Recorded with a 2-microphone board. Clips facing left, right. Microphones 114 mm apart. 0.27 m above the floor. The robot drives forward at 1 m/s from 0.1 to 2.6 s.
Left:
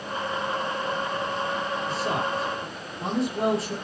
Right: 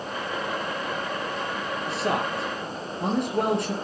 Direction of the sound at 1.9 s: 65° right (ahead or behind).